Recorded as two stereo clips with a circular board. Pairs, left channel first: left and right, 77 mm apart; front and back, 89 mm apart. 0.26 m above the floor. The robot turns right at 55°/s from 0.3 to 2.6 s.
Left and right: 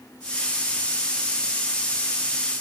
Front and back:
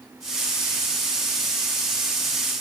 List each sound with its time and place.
Only background noise.